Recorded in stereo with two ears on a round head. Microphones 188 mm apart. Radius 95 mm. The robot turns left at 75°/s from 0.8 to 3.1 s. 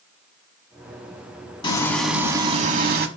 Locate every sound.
1.6 s frying: 30° left, 0.7 m; by 3.1 s 75° right, 0.7 m